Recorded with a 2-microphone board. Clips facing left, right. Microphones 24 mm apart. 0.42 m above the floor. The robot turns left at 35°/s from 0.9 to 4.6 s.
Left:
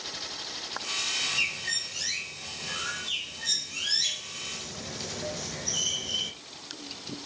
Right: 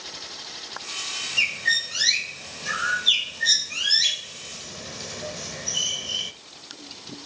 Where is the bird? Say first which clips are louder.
Right 7 dB; 55° right (ahead or behind), 1.0 m; by 6.3 s 10° right (ahead or behind), 1.0 m.